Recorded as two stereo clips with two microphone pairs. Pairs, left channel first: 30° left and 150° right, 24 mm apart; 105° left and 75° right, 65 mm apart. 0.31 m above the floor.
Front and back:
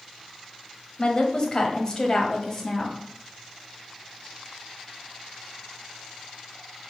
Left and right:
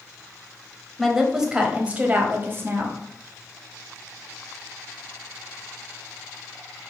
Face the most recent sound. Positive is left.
turn(degrees=-40)